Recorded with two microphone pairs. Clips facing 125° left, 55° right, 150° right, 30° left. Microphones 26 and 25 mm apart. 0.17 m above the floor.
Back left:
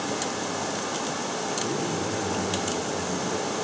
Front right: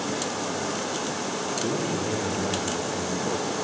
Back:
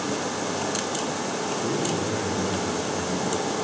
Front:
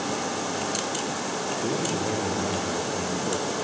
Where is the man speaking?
5° right, 3.5 m.